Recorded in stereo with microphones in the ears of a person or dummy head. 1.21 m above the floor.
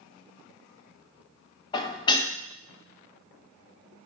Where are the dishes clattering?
20° left (ahead or behind), 0.8 m.